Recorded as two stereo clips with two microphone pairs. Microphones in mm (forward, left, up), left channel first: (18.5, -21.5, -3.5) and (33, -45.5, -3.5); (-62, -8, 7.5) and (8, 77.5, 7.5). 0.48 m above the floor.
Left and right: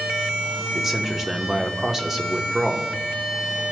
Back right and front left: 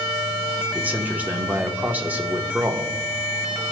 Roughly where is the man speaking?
Ahead.